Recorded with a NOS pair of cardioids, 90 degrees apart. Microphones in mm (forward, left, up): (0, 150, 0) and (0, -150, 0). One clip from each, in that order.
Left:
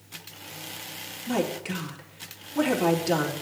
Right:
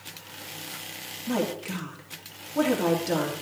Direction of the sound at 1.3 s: 10° left.